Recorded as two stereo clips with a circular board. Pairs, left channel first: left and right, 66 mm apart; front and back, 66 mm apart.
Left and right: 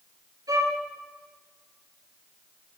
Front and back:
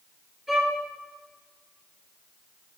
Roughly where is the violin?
Right.